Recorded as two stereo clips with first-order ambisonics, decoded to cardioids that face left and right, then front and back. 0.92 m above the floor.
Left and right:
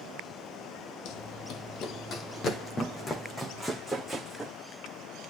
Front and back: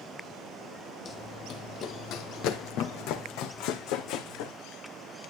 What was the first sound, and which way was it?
Running footsteps, 65° left.